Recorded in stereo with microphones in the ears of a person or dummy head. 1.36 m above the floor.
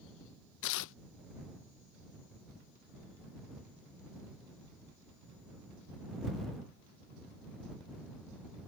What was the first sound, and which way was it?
Tearing paper, 85° left.